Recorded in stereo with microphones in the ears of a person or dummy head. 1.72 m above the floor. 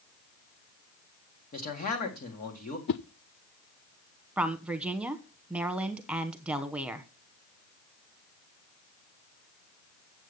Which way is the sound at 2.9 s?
50° left (ahead or behind).